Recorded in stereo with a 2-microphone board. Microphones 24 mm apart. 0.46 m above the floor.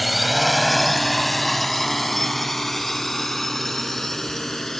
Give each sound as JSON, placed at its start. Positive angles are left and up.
{"t": 0.0, "sound": "a drone", "side_deg": -5}